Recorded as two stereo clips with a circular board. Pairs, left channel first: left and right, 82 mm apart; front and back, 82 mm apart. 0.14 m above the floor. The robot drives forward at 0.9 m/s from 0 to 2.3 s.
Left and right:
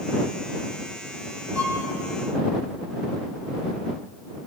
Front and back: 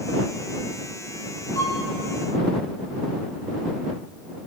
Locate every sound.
1.6 s a violin: 45° right, 6.5 m; by 1.9 s 50° right, 6.5 m